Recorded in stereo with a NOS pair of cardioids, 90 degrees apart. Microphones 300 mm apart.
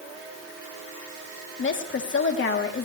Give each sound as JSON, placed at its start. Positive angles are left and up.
{"t": 1.6, "sound": "a woman speaking", "azimuth_deg": 40, "distance_m": 3.5}